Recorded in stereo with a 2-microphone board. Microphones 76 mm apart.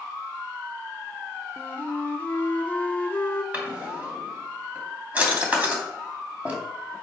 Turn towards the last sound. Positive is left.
turn(degrees=-20)  # may be behind; listen again after turning